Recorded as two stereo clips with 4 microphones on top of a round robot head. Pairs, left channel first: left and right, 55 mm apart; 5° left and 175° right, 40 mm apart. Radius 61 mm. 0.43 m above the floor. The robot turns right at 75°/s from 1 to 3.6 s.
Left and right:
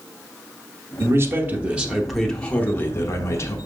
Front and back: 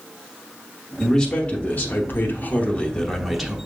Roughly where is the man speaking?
Right.